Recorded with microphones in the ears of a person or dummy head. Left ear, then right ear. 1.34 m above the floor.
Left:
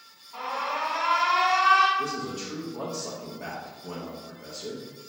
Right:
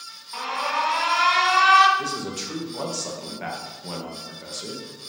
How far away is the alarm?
About 0.7 m.